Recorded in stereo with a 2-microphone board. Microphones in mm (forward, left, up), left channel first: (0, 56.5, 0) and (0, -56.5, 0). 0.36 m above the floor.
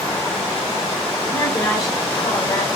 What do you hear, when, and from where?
1.3 s a woman speaking: 25° left (ahead or behind), 1.3 m; by 2.7 s 50° left (ahead or behind), 1.8 m